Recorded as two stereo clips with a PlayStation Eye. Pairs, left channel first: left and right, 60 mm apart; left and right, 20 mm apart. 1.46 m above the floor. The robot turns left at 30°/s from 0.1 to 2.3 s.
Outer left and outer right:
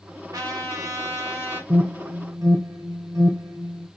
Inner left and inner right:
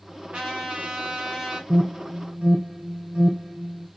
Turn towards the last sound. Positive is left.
turn(degrees=-65)  # may be behind; listen again after turning